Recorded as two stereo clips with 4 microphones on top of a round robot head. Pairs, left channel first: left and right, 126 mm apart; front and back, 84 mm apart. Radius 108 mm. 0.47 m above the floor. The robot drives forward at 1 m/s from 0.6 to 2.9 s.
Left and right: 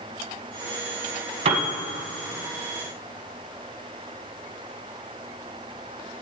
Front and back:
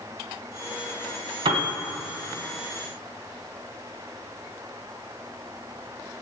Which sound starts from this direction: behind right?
A piano, at 1.4 s.